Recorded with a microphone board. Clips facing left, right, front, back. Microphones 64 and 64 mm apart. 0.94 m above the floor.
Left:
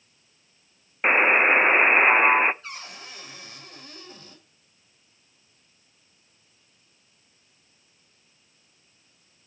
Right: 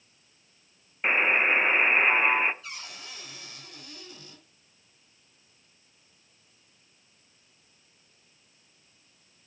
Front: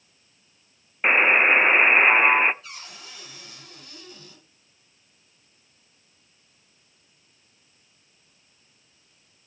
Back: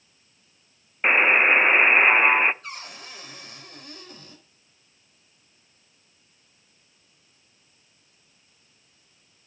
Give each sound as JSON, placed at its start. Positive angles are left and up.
{"t": 1.0, "sound": "a buzzer", "azimuth_deg": 90, "distance_m": 0.5}
{"t": 2.6, "sound": "a cupboard door", "azimuth_deg": 145, "distance_m": 5.0}